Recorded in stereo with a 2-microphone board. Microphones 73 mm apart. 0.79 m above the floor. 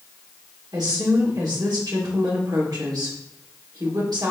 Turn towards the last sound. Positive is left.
turn(degrees=-70)  # may be behind; listen again after turning